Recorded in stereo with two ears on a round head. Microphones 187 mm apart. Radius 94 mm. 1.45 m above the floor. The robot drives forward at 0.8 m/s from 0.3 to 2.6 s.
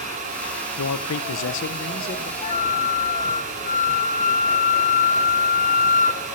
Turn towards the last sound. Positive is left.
turn(degrees=35)  # may be behind; listen again after turning